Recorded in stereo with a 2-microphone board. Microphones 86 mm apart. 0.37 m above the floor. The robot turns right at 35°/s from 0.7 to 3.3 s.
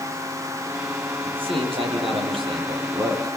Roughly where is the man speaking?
Behind right.